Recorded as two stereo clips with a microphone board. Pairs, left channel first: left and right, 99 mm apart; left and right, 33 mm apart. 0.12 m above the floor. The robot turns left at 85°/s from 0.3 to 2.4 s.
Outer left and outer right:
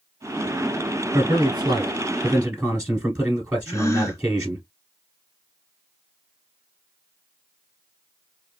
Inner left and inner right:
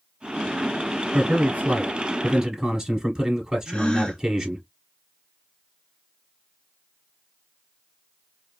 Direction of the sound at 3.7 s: 30° left (ahead or behind).